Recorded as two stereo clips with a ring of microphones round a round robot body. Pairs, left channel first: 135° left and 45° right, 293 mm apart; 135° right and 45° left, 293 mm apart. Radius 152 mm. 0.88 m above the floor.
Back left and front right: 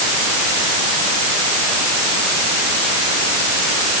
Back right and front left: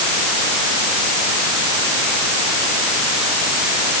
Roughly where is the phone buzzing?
I don't hear a phone buzzing.